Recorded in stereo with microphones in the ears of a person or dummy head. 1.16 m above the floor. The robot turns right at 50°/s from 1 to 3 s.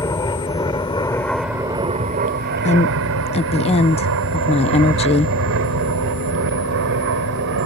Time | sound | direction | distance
0.0 | an aircraft | 15° left (ahead or behind) | ?
2.6 | a woman speaking | 35° left (ahead or behind) | ?